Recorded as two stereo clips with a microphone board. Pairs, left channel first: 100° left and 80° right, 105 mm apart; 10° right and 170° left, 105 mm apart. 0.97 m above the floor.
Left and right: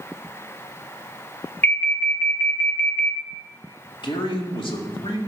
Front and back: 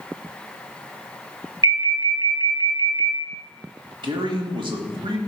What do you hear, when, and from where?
1.6 s an alarm: 160° left, 1.2 m
4.0 s a man speaking: 135° left, 2.0 m